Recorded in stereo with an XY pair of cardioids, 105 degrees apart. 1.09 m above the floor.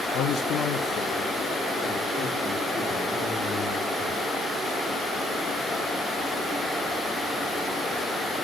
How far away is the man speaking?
About 1.1 m.